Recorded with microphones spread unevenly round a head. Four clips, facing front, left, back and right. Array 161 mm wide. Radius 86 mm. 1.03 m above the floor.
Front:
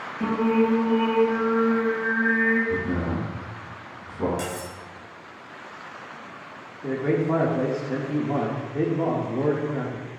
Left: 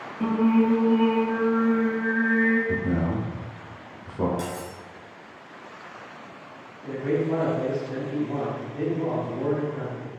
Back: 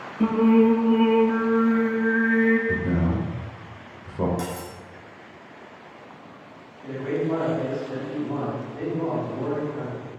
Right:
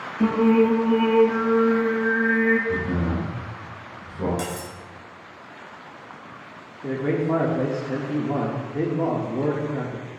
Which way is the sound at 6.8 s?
50° right.